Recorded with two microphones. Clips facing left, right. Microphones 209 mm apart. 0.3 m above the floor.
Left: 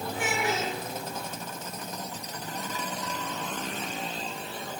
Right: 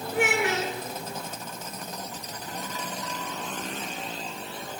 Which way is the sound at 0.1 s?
70° right (ahead or behind).